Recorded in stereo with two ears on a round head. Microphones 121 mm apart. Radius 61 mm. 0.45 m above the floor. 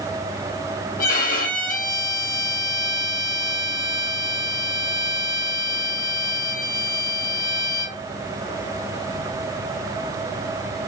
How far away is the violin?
About 2.5 m.